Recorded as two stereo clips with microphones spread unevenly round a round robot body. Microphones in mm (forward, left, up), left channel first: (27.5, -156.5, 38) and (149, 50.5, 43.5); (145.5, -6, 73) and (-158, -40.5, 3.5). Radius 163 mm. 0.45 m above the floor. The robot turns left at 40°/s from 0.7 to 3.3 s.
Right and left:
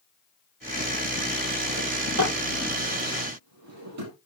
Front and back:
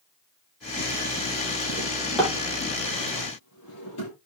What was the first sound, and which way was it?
A drawer, 115° left.